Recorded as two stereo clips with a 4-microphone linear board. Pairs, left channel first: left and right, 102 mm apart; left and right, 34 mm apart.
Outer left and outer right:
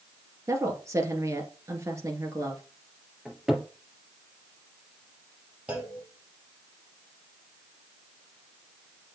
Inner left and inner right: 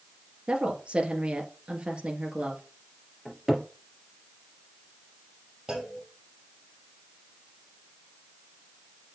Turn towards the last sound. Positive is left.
turn(degrees=-15)  # may be behind; listen again after turning